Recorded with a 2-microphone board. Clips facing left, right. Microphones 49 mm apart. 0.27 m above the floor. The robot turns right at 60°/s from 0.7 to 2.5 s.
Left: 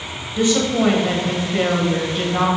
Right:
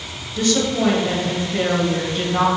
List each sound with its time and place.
0.4 s a woman speaking: 20° left (ahead or behind), 1.5 m; by 2.5 s 5° right (ahead or behind), 1.5 m